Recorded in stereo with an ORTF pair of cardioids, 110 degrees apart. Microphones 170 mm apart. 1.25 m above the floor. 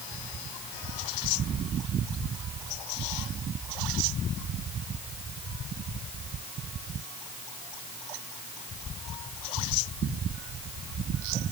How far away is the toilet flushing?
I don't hear a toilet flushing.